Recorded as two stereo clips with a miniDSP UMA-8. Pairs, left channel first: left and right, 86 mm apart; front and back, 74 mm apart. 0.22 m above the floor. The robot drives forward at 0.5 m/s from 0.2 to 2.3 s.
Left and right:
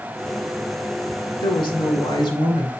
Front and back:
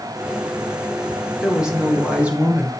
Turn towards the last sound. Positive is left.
turn(degrees=105)